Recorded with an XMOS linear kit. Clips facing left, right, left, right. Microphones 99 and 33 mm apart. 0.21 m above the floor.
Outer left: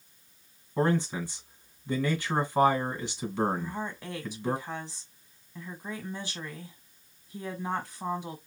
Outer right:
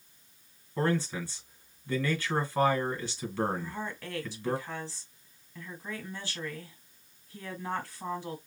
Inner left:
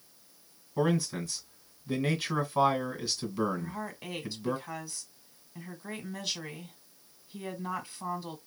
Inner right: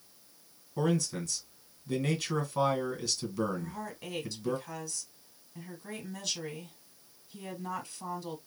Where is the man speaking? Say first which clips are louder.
Outer left 2 dB, inner left 2 dB; 15° left (ahead or behind), 1.8 m.